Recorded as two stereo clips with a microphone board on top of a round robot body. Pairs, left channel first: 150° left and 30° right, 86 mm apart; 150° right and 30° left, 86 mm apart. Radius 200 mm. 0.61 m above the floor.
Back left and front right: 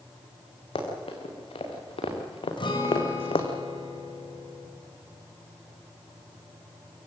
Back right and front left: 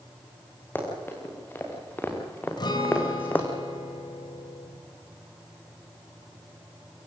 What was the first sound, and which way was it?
Running footsteps, 145° left.